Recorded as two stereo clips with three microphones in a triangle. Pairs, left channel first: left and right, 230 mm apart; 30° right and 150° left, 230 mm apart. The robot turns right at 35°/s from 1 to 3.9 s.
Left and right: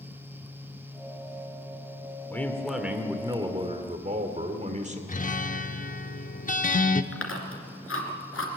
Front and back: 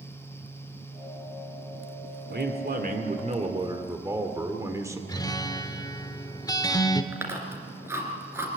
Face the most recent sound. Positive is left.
turn(degrees=70)